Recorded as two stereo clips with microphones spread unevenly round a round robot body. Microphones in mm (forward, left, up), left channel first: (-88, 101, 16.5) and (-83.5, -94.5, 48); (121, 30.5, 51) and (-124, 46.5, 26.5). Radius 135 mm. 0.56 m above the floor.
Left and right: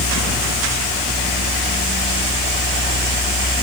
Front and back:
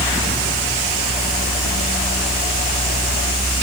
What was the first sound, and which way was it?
Only background noise.